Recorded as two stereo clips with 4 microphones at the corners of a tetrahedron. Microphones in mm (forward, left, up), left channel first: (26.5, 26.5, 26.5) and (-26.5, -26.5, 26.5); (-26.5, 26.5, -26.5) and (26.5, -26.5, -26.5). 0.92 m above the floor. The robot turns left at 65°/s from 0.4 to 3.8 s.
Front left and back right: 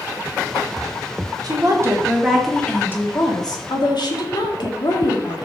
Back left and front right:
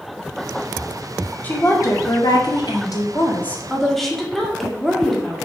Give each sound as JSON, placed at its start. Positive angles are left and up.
{"t": 1.4, "sound": "a woman speaking", "azimuth_deg": -160, "distance_m": 1.9}